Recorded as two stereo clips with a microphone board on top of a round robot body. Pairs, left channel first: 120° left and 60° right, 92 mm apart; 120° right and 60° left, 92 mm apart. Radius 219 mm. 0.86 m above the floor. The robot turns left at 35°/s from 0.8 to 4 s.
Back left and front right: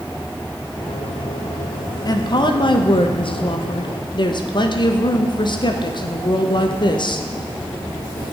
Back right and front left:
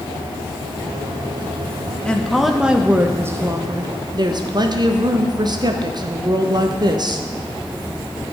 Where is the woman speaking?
160° left, 1.4 m; by 7.3 s 95° left, 1.4 m.